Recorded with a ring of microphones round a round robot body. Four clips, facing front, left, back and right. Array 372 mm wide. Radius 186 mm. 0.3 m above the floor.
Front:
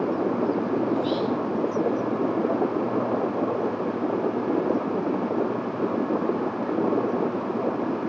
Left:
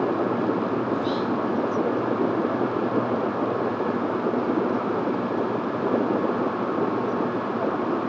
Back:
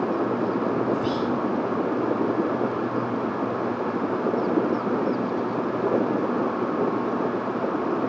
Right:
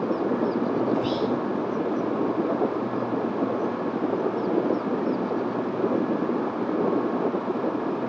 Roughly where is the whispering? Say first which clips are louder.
Even, even; behind.